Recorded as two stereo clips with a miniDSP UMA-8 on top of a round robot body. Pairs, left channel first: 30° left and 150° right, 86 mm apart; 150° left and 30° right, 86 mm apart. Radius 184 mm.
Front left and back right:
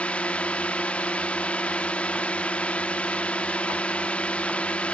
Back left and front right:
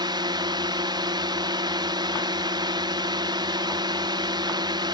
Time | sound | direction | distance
0.0 | a drone | 45° right | ?